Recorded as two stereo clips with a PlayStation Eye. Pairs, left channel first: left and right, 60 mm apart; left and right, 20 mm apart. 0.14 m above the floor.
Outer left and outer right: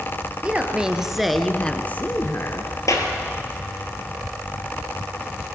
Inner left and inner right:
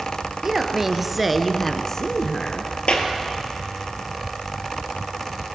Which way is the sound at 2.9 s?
60° left (ahead or behind).